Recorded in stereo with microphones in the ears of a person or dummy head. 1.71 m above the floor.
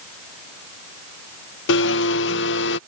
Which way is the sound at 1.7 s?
65° left (ahead or behind).